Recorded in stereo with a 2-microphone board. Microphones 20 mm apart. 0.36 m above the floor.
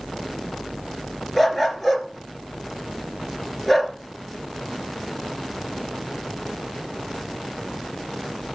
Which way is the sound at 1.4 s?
Centre (ahead or behind).